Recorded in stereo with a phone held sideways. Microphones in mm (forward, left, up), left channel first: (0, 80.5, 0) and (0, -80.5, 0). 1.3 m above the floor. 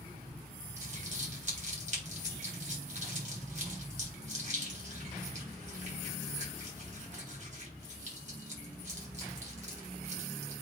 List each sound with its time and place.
0.8 s crumpling: 50° right (ahead or behind), 3.5 m